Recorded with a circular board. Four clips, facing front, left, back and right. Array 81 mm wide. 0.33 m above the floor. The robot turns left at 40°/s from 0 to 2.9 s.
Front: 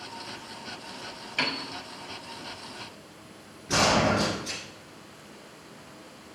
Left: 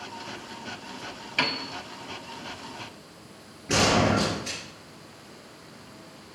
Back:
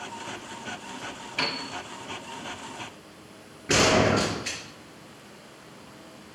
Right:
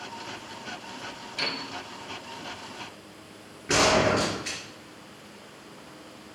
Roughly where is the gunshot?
Behind right.